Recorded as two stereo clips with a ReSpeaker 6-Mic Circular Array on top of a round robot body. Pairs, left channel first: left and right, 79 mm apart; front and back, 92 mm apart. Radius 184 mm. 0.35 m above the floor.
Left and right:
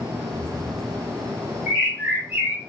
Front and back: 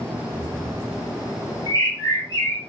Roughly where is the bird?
Ahead right.